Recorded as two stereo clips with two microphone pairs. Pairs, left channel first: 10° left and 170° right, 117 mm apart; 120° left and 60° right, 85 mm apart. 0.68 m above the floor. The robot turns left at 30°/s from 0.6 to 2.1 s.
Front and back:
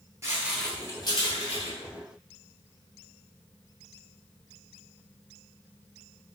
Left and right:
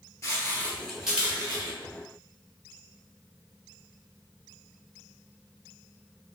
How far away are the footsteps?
About 0.7 m.